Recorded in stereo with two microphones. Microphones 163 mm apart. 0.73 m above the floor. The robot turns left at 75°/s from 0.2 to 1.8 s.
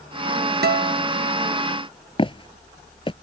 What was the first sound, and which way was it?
A guitar, 100° right.